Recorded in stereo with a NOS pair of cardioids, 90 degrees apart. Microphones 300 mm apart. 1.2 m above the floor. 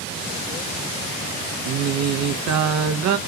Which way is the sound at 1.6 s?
65° right.